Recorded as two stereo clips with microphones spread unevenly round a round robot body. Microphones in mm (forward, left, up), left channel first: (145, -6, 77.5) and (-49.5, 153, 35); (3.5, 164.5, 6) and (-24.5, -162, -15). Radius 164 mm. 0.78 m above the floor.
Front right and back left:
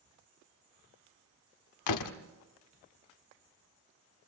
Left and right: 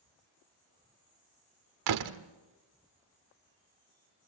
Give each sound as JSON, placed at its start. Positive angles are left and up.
{"t": 1.9, "sound": "a door slam", "azimuth_deg": -60, "distance_m": 1.3}